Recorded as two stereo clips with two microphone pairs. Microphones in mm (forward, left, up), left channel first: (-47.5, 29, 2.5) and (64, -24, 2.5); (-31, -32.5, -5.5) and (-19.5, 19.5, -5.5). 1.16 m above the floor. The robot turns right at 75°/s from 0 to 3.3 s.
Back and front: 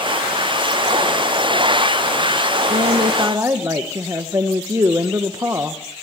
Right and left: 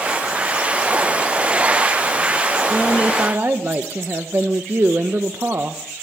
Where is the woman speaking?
5° right, 1.1 m; by 5.8 s 40° left, 1.1 m.